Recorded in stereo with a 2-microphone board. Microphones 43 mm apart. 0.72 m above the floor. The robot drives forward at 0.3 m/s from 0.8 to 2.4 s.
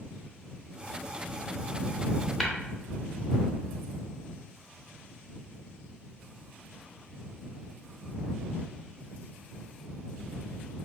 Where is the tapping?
5° left (ahead or behind), 0.6 m.